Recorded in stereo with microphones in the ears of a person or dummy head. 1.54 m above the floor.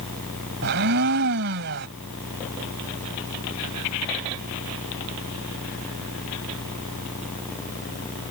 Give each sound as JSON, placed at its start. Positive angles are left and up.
{"t": 0.6, "sound": "a blender", "side_deg": -60}